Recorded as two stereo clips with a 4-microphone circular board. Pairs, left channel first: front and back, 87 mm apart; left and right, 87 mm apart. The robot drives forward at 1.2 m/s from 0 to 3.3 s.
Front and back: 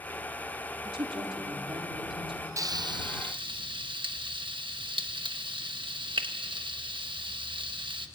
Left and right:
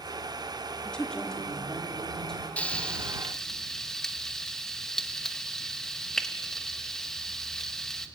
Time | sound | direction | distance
0.8 | a woman speaking | 170° left | 2.5 m
2.6 | frying | 155° left | 0.5 m